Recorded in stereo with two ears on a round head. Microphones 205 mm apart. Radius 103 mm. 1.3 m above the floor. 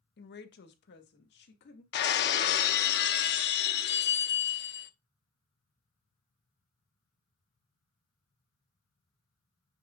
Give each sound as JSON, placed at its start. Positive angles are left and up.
{"t": 0.2, "sound": "a woman speaking", "side_deg": 45, "distance_m": 1.3}
{"t": 1.9, "sound": "breaking glass", "side_deg": 45, "distance_m": 1.0}